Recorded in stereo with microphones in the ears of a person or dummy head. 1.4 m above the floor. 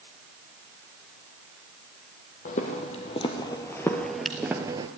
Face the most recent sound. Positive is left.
turn(degrees=-25)  # may be behind; listen again after turning